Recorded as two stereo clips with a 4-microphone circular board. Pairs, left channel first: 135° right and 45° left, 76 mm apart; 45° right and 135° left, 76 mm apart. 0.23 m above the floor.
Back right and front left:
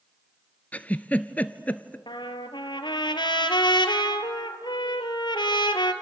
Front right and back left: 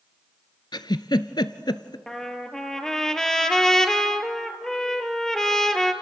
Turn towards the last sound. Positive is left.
turn(degrees=-130)